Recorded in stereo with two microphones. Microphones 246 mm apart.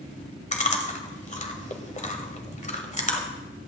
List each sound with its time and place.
0.5 s chewing: 30° left (ahead or behind), 1.4 m